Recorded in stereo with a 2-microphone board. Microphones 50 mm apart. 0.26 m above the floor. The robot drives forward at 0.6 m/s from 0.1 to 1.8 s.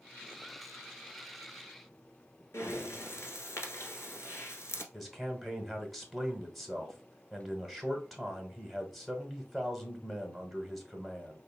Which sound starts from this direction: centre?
A man speaking, at 4.9 s.